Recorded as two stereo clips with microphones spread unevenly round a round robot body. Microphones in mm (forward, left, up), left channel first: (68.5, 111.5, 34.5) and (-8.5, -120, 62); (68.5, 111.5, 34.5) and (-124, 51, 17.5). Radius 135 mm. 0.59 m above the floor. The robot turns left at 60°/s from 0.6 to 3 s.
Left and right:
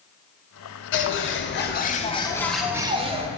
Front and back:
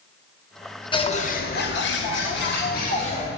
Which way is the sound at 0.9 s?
85° left.